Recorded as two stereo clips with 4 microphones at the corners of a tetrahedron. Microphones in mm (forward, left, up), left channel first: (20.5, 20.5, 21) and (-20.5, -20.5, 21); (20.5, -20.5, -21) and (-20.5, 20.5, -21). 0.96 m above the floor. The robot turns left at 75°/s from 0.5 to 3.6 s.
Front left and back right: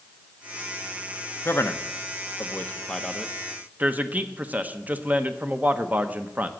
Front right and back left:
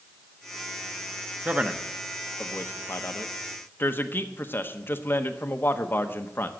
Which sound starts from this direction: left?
A man speaking, at 1.4 s.